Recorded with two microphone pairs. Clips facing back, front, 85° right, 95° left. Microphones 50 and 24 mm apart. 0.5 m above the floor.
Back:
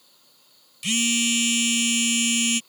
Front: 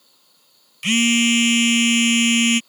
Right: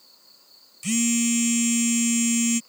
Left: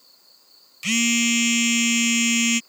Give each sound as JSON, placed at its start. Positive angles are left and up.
{"t": 0.8, "sound": "a phone buzzing", "azimuth_deg": 45}